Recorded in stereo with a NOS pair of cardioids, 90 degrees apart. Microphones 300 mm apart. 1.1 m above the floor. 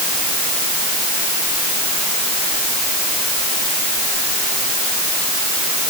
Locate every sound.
Only background noise.